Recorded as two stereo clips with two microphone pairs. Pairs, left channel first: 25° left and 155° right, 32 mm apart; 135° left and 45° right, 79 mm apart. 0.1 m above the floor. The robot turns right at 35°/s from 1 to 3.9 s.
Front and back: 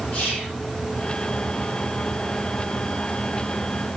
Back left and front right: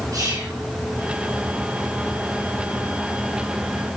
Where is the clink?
No clink in this recording.